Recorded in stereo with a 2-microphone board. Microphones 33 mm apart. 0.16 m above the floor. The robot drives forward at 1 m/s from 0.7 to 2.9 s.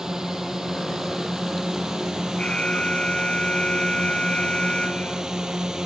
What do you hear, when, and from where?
0.0 s a drone: 15° right (ahead or behind); by 5.9 s 20° right (ahead or behind)
2.4 s an alarm: 30° left (ahead or behind)